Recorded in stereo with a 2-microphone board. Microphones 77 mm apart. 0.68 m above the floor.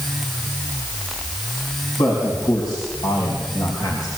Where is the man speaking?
55° left (ahead or behind), 5.5 m; by 4.1 s 50° left (ahead or behind), 3.5 m.